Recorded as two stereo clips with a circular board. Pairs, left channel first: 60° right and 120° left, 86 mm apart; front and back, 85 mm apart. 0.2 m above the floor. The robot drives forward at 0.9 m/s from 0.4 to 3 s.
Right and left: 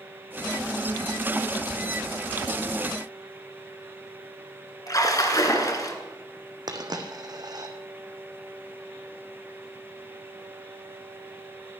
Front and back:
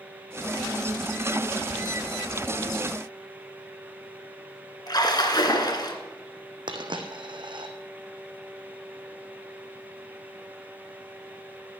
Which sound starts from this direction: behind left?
A dropped coin, at 6.7 s.